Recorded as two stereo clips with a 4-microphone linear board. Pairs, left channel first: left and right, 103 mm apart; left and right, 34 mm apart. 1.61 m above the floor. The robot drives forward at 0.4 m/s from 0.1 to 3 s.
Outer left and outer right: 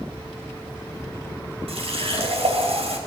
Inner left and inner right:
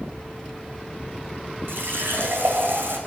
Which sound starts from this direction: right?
A running tap, at 1.7 s.